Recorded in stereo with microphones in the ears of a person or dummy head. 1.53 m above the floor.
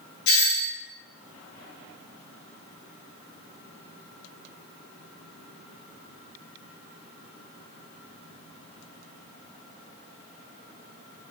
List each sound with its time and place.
0.3 s a doorbell: 70° left (ahead or behind), 1.0 m